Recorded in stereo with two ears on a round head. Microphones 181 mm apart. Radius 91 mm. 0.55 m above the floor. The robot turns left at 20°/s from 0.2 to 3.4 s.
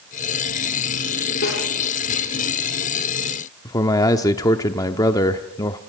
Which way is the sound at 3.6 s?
15° left (ahead or behind).